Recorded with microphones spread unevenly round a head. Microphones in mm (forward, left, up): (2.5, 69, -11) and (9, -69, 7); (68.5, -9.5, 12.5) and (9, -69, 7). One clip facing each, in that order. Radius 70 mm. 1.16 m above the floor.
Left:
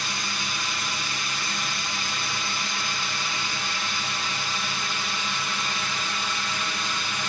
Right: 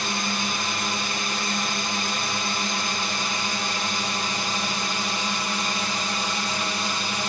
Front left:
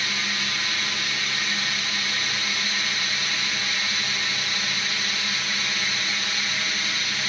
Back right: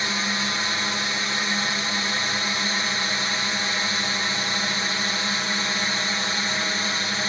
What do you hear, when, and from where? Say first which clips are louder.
0.0 s a drone: right 6 dB, back right 3 dB; 95° right; by 7.3 s 120° right